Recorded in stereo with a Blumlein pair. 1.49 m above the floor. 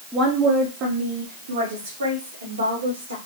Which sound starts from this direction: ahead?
A woman speaking, at 0.1 s.